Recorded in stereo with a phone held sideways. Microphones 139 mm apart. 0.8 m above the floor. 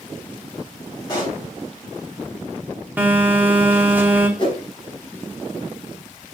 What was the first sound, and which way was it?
A pop, 25° left (ahead or behind).